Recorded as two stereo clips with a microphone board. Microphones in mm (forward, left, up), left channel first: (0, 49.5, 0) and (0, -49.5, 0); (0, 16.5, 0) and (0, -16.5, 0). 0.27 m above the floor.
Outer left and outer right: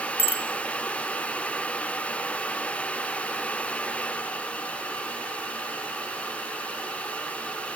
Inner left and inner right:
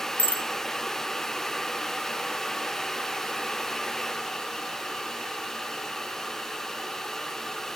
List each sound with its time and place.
0.2 s a bicycle bell: 75° left (ahead or behind), 3 m